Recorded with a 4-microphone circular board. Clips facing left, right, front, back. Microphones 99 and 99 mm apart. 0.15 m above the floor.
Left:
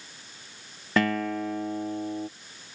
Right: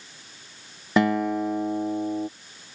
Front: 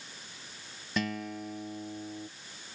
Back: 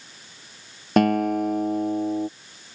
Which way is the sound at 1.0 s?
160° right.